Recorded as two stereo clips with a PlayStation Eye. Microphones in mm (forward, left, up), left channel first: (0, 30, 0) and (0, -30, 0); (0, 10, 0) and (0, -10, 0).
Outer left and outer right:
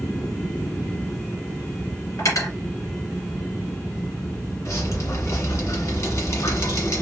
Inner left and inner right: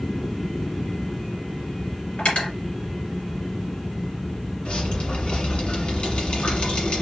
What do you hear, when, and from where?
2.2 s cutlery clinking: 65° left (ahead or behind), 1.8 m
4.7 s dripping: 60° left (ahead or behind), 1.5 m